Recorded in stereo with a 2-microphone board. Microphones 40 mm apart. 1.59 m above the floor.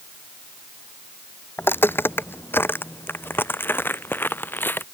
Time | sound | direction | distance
1.6 | footsteps | 65° left (ahead or behind) | ?